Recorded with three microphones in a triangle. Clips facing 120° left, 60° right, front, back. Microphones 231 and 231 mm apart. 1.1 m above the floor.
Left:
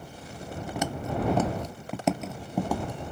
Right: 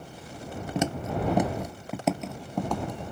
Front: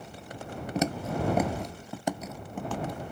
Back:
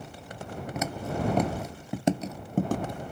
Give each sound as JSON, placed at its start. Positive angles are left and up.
{"t": 0.8, "sound": "footsteps", "azimuth_deg": -15}